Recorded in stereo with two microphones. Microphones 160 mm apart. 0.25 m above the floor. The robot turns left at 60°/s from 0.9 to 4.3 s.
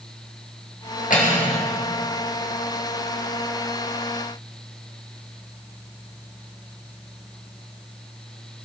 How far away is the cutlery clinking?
About 3 m.